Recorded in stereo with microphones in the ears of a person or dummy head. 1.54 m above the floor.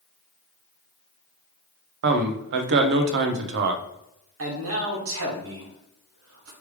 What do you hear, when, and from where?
2.0 s a man speaking: 60° right (ahead or behind), 0.7 m
4.4 s a man speaking: 75° right (ahead or behind), 1.6 m